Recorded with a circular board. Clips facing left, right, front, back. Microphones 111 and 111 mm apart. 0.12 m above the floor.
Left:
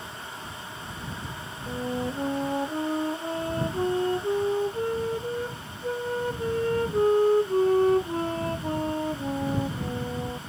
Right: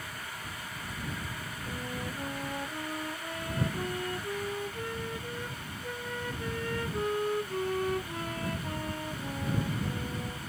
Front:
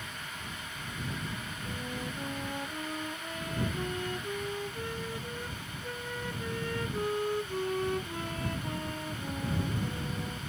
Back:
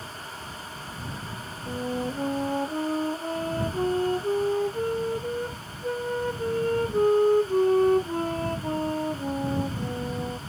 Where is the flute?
140° left.